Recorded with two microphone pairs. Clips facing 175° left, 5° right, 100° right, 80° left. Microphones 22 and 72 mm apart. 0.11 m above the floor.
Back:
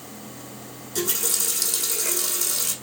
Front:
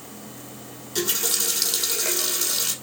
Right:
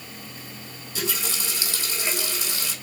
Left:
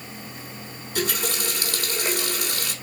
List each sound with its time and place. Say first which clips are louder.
0.9 s a running tap: front 1 dB, left 4 dB; 50° left, 3 m